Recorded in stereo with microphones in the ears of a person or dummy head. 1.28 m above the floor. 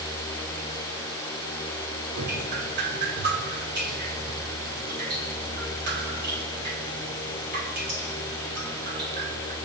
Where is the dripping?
50° right (ahead or behind), 4 m.